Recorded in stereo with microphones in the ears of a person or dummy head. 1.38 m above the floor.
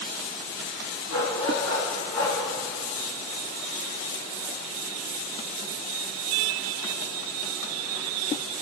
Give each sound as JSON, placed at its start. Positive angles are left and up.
{"t": 1.1, "sound": "a dog barking", "side_deg": 45, "distance_m": 5.5}